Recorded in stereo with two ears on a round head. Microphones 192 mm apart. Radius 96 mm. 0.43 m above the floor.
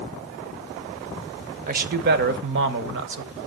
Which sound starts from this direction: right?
A man speaking, at 1.7 s.